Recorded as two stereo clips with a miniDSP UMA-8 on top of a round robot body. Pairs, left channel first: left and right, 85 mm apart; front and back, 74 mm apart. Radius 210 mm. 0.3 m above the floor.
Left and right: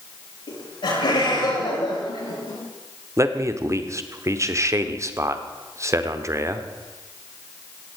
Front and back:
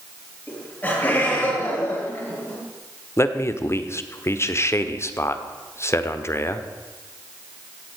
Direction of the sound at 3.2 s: 45° right.